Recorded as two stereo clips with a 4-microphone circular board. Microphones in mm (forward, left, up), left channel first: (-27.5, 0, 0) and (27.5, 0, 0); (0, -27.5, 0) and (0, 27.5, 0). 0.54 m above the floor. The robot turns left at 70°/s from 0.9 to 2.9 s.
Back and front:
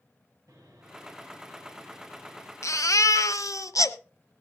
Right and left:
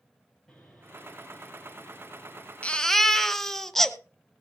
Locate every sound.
0.5 s sawing: straight ahead, 5 m; by 2.5 s 115° right, 5 m
2.6 s a baby crying: 155° right, 0.9 m; by 4.0 s 175° right, 0.9 m